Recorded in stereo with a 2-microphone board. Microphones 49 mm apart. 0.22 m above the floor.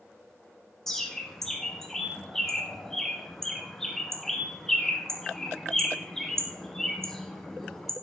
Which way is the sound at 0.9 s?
10° left (ahead or behind).